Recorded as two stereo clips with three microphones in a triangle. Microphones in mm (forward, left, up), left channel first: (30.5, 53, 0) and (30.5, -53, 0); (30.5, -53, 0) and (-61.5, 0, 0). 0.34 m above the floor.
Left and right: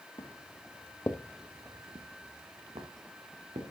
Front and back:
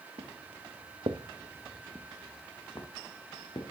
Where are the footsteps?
130° left, 1.8 m; by 3.7 s 75° right, 3 m.